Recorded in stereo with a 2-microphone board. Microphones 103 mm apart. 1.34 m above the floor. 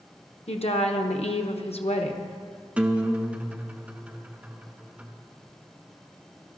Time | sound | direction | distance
0.5 | a woman speaking | 80° left | 0.9 m
2.8 | a guitar | 10° right (ahead or behind) | 0.7 m